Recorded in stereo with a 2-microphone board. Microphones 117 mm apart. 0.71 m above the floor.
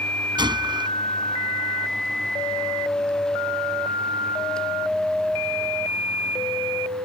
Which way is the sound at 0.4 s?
40° right (ahead or behind).